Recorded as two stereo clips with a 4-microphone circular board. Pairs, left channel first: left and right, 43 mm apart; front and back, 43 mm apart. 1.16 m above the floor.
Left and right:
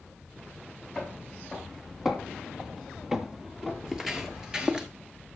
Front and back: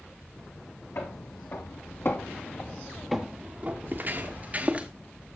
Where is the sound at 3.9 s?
165° right, 1.6 m; by 4.9 s 145° right, 1.3 m.